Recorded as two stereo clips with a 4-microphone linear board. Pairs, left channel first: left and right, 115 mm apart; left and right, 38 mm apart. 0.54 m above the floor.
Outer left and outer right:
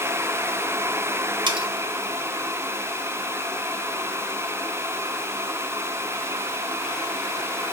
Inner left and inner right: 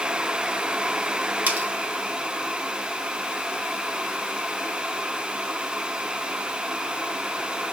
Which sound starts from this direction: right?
Cutlery clinking, at 1.5 s.